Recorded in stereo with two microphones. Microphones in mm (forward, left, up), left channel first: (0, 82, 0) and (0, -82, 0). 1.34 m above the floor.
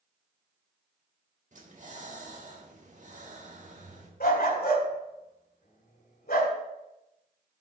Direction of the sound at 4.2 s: 65° left (ahead or behind).